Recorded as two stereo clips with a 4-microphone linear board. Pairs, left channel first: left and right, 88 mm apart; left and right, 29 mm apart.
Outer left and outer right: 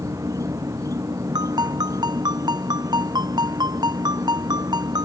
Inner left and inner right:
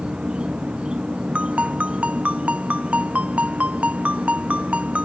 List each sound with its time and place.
0.0 s an insect: 40° right (ahead or behind)
1.4 s a ringtone: 50° right (ahead or behind)